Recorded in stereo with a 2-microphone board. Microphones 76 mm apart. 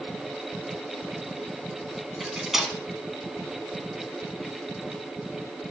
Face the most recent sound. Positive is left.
turn(degrees=-5)  # may be behind; listen again after turning